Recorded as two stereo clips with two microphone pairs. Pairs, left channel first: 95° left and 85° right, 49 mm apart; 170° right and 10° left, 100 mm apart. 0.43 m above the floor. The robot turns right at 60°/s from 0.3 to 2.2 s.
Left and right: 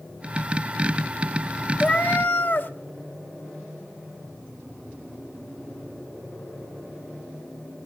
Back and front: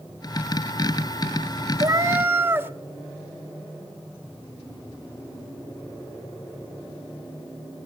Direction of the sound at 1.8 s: 40° left.